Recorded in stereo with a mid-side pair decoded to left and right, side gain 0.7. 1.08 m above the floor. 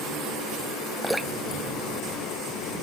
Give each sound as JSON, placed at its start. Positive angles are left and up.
{"t": 1.0, "sound": "dripping", "azimuth_deg": 0}